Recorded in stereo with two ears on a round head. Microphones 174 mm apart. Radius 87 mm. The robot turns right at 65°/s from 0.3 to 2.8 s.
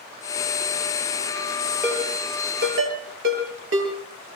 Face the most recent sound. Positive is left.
turn(degrees=-70)  # may be behind; listen again after turning